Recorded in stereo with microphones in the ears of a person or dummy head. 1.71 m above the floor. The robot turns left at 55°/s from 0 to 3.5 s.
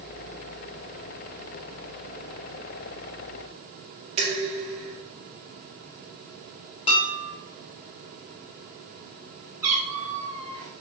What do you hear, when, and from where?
4.2 s dishes clattering: 30° right (ahead or behind), 2.0 m
6.9 s dishes clattering: 25° left (ahead or behind), 0.9 m
9.6 s a cat meowing: 10° right (ahead or behind), 2 m